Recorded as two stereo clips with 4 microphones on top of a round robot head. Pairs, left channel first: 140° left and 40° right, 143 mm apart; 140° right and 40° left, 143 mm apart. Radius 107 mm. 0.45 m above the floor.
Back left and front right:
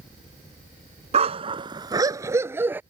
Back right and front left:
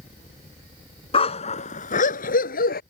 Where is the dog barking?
85° right; by 2.8 s 115° right.